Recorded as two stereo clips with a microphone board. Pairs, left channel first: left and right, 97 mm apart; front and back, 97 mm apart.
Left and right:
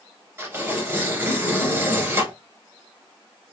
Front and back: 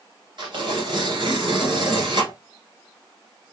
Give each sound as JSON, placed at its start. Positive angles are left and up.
{"t": 0.4, "sound": "tearing paper", "azimuth_deg": -150, "distance_m": 2.0}